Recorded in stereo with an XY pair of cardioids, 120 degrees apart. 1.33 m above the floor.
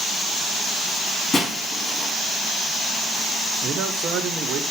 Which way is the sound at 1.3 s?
30° left.